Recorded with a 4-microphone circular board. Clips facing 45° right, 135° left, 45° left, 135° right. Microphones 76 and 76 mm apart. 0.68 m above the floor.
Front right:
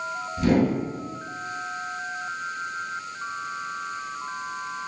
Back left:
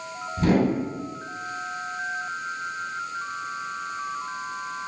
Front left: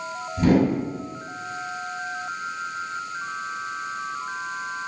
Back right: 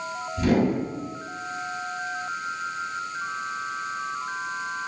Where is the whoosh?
90° left, 1.3 m.